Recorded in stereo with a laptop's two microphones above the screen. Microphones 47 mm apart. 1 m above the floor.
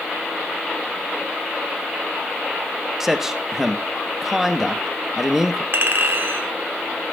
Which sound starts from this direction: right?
A clink, at 5.7 s.